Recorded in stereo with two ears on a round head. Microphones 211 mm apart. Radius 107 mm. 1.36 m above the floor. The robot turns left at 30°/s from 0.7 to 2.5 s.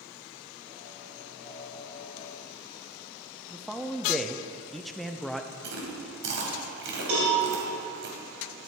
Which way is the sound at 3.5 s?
Centre (ahead or behind).